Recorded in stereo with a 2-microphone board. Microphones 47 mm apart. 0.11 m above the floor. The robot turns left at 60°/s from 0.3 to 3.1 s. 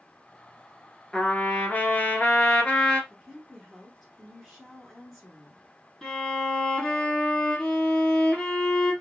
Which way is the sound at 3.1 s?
Centre (ahead or behind).